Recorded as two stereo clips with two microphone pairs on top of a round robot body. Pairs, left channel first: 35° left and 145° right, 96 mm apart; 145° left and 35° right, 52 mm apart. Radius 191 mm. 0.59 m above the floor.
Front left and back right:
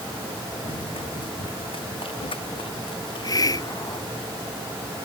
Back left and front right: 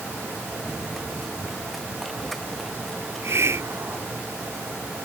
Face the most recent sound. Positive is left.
turn(degrees=-10)